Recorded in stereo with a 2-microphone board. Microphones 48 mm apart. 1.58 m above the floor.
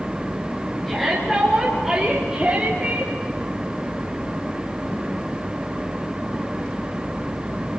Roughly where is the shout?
Centre.